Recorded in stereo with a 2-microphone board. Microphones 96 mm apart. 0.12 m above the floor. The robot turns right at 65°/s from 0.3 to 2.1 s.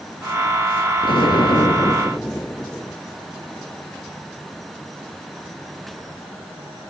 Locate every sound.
1.0 s an explosion: 90° left, 0.6 m; by 3.0 s 160° left, 0.6 m